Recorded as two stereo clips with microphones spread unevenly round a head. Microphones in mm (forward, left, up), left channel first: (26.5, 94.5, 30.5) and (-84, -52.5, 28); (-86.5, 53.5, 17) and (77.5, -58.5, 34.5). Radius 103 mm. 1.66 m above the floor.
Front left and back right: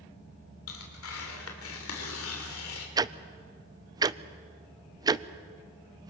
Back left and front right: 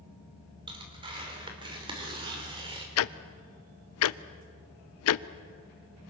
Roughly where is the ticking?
Behind.